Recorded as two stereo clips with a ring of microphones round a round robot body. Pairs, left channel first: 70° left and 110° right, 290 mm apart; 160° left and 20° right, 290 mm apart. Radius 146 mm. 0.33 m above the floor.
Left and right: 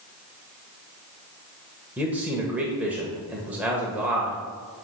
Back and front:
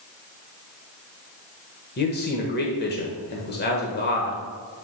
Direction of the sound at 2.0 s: 165° left.